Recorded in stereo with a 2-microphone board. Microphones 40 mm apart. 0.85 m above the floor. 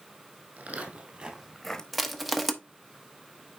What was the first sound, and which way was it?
Footsteps, 45° right (ahead or behind).